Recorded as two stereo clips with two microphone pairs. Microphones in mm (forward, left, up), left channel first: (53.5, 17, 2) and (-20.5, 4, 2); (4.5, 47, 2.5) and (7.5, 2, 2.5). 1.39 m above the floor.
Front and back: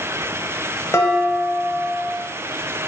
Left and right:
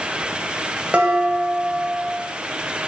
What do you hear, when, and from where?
0.9 s dishes clattering: 30° right, 0.7 m